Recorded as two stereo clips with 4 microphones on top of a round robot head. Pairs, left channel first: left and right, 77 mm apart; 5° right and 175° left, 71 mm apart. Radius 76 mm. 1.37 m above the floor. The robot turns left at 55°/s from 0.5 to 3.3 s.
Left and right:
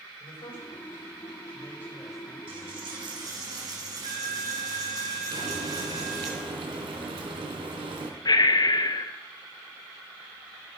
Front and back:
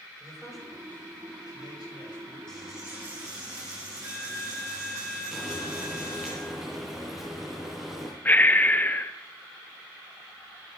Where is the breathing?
60° left, 1.0 m.